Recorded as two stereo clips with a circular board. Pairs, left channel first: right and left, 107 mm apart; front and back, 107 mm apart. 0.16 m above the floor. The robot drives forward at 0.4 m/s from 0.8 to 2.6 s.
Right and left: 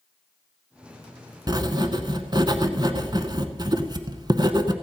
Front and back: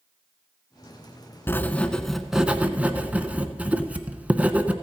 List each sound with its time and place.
1.5 s writing: 60° left, 0.8 m; by 4.7 s 110° left, 0.8 m